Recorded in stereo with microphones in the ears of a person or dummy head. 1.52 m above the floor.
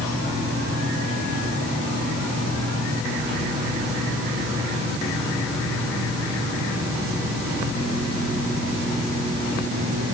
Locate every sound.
Only background noise.